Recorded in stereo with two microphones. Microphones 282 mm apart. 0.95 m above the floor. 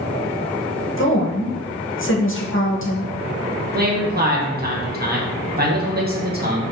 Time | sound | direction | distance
1.0 | a woman speaking | 45° left (ahead or behind) | 0.8 m
3.7 | a man speaking | 35° right (ahead or behind) | 0.9 m